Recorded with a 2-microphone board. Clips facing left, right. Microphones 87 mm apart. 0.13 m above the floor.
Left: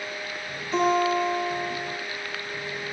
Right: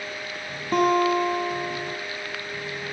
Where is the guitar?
65° right (ahead or behind), 2 m.